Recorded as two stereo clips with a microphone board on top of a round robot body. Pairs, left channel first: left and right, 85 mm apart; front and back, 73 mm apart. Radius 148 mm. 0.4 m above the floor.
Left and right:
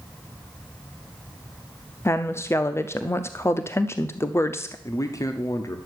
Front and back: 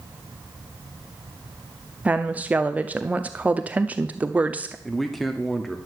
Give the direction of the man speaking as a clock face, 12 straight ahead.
9 o'clock.